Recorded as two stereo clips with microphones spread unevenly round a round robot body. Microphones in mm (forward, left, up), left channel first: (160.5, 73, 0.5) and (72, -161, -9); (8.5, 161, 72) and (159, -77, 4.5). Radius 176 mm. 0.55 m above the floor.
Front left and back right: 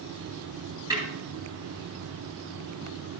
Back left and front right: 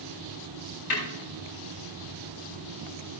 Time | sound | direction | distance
0.9 | a snare drum | 170° left | 3.5 m